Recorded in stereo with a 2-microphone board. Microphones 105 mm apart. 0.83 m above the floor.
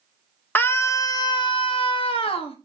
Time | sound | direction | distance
0.6 | a scream | 15° left (ahead or behind) | 0.8 m